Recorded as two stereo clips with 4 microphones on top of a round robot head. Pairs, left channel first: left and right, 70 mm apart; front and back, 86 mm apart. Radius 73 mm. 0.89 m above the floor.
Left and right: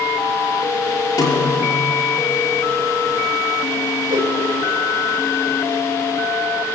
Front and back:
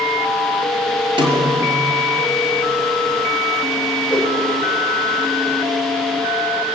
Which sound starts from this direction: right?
A whoosh, at 4.1 s.